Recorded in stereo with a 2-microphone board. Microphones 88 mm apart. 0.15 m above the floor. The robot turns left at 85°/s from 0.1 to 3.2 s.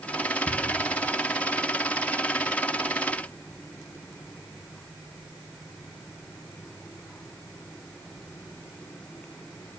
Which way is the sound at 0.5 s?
30° right (ahead or behind).